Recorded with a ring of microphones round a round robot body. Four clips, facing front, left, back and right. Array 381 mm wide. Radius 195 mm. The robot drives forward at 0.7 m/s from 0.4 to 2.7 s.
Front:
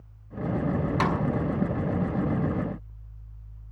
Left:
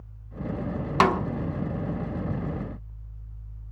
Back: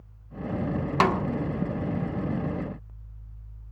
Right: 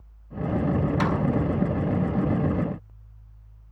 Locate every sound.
1.0 s a snare drum: 120° left, 1.3 m; by 1.2 s 125° left, 1.4 m